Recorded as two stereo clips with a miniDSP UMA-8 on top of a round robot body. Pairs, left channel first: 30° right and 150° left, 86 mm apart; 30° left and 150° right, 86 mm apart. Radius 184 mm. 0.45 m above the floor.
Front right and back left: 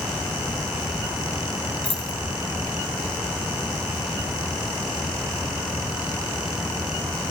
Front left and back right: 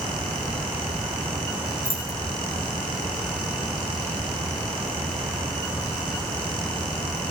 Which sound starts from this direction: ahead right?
Keys jangling, at 1.8 s.